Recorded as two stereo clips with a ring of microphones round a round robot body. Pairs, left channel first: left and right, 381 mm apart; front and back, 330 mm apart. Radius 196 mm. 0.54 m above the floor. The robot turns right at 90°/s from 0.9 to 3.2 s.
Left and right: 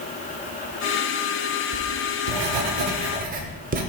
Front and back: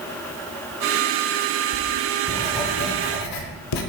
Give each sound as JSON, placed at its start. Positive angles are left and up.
{"t": 1.7, "sound": "writing", "azimuth_deg": -155, "distance_m": 0.9}